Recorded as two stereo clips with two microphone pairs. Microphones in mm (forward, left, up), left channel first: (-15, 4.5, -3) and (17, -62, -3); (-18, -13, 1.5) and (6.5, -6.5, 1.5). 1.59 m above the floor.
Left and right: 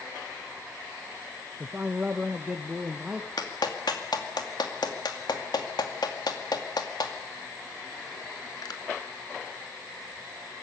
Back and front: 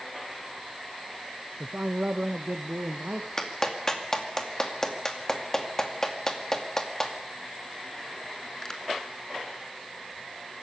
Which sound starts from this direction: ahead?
A man speaking, at 1.6 s.